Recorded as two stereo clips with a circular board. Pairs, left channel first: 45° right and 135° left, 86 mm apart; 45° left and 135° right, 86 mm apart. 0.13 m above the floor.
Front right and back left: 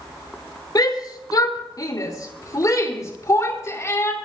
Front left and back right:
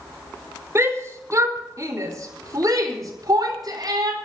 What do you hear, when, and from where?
0.8 s a shout: 80° right, 4.5 m; by 4.2 s 105° right, 4.5 m